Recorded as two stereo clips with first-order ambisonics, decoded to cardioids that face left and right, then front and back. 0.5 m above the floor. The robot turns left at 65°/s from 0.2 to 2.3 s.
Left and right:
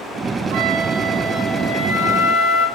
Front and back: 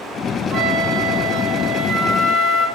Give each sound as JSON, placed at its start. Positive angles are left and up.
{"t": 0.5, "sound": "a flute", "azimuth_deg": -110, "distance_m": 3.0}